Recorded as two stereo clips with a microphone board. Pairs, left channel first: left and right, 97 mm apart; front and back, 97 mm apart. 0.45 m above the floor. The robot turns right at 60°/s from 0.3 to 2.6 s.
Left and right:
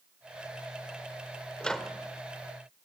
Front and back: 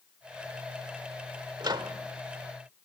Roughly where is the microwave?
Behind.